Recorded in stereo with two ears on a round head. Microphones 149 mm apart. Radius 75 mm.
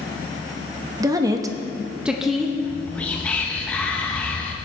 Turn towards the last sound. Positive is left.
turn(degrees=10)  # may be behind; listen again after turning